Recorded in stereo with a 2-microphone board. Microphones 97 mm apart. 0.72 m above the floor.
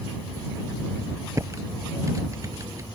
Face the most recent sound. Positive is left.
turn(degrees=-30)  # may be behind; listen again after turning